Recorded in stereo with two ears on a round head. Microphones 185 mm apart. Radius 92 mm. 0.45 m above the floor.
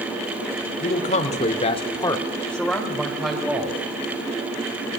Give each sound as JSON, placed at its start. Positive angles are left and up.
{"t": 0.8, "sound": "a man speaking", "side_deg": 35, "distance_m": 1.9}